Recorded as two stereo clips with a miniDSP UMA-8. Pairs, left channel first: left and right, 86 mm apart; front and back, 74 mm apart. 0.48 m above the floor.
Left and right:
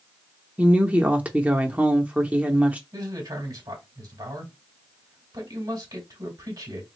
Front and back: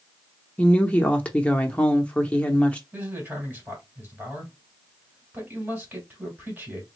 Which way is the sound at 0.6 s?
45° right.